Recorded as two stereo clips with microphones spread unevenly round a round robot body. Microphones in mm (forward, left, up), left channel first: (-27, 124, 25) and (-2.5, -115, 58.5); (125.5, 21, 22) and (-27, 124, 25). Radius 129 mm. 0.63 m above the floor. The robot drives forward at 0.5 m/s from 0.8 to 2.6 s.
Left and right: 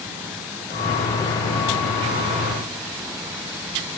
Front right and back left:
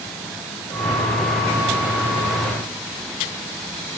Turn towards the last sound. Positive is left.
No sound to turn to.